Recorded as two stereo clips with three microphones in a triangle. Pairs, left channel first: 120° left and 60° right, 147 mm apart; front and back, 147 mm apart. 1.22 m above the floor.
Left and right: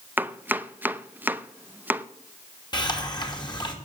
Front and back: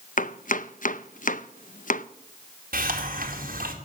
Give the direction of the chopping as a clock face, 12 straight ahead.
11 o'clock.